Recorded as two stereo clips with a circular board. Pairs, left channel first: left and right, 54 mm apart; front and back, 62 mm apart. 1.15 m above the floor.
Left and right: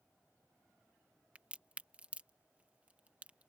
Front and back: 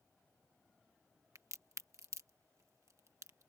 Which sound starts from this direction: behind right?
A crack, at 1.4 s.